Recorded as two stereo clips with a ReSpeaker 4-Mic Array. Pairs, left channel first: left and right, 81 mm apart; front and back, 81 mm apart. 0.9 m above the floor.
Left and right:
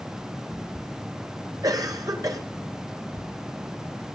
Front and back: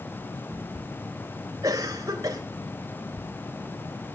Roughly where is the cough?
Behind right.